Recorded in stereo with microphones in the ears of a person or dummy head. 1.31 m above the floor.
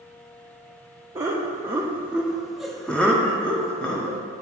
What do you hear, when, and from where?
1.1 s laughter: 15° right (ahead or behind), 0.7 m; by 4.2 s 5° left (ahead or behind), 1.4 m